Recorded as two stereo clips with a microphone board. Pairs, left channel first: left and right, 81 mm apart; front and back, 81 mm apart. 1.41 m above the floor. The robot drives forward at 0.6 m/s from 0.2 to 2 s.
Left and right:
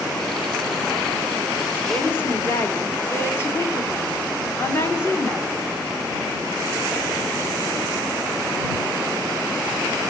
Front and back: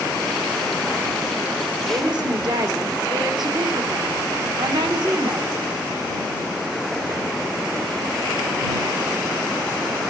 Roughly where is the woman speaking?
Behind left.